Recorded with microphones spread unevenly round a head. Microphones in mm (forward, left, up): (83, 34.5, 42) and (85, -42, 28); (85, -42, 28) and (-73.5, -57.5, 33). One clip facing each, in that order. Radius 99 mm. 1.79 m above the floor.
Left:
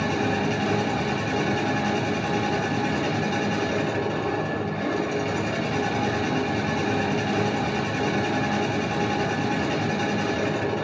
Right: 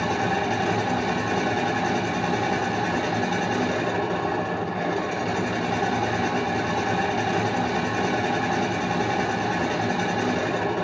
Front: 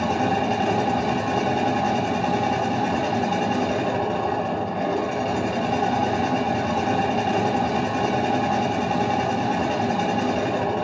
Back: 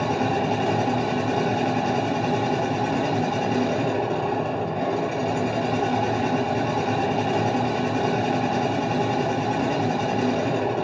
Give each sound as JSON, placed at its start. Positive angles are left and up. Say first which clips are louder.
{"t": 0.0, "sound": "a machine running", "louder": "even, front 1 dB", "azimuth_deg": -50, "distance_m": 3.0}